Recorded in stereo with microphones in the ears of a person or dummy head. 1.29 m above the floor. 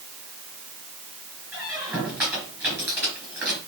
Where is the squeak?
10° right (ahead or behind), 4.5 m.